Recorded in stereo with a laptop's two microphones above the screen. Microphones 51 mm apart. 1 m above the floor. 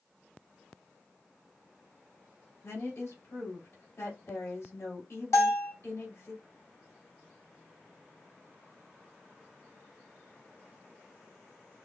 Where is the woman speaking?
65° left (ahead or behind), 3 m.